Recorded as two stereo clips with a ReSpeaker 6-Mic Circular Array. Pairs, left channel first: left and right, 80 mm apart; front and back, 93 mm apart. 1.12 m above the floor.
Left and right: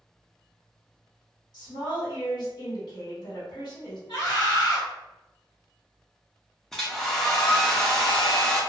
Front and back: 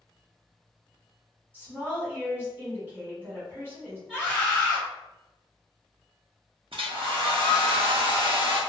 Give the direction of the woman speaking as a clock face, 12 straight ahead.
8 o'clock.